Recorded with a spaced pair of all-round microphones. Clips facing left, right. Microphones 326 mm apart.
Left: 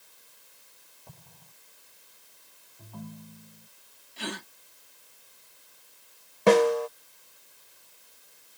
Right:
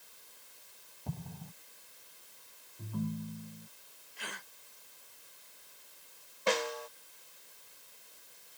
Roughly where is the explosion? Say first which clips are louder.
Right 13 dB; right.